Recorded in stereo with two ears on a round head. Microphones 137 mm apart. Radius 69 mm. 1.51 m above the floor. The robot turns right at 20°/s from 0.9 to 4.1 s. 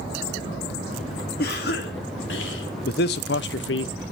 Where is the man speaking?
60° left (ahead or behind), 0.9 m; by 3.9 s 85° left, 0.9 m.